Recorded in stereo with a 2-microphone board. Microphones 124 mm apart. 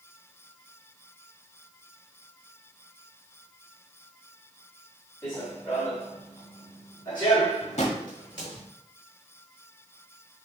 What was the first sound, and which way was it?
Running footsteps, 15° left (ahead or behind).